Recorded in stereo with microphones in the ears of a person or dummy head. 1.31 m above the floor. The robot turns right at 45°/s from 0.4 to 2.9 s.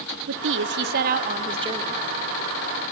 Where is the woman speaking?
85° right, 0.6 m; by 2.0 s 15° right, 0.6 m.